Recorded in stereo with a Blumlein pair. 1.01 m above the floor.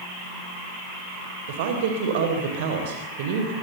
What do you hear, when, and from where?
1.5 s a woman speaking: 50° right, 3.5 m